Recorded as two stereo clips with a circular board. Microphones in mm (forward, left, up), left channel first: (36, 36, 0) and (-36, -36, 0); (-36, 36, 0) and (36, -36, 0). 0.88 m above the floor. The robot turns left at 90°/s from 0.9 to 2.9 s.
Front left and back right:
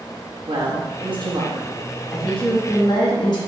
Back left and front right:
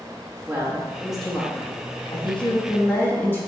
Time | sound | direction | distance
0.5 | a woman speaking | 110° right | 1.0 m